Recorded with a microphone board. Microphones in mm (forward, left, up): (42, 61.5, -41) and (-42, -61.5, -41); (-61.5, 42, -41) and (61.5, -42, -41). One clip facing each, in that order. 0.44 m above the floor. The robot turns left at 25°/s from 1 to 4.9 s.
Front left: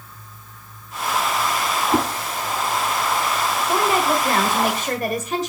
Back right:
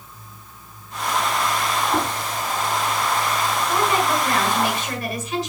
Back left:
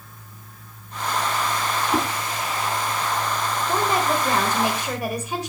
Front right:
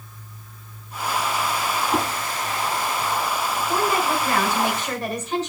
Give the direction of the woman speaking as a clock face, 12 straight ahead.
9 o'clock.